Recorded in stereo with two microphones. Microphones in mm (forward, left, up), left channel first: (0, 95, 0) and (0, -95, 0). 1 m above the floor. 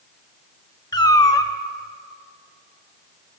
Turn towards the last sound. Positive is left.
turn(degrees=20)  # may be behind; listen again after turning